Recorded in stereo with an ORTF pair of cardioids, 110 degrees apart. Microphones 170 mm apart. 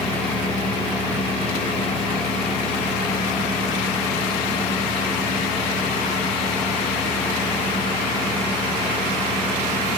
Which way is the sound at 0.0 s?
10° left.